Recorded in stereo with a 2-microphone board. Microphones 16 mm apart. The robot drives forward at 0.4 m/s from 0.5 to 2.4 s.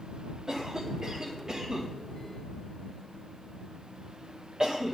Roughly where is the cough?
Right.